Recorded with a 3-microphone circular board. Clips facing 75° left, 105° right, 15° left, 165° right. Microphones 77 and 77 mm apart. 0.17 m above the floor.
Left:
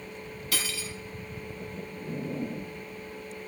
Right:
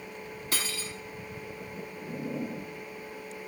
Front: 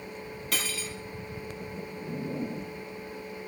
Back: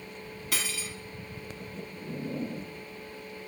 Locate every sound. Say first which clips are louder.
0.5 s cutlery clinking: left 1 dB, front 1 dB; 85° right, 0.7 m